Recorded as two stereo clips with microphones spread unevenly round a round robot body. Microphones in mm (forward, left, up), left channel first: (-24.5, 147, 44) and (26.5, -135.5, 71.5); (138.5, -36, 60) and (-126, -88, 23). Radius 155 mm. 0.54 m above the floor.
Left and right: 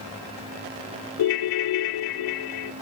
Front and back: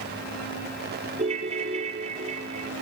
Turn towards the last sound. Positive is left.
turn(degrees=120)